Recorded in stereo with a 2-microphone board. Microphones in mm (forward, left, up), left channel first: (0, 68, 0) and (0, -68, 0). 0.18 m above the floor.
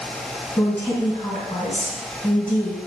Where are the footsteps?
No footsteps in this recording.